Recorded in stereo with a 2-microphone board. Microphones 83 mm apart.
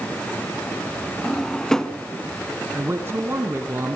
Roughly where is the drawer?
Centre.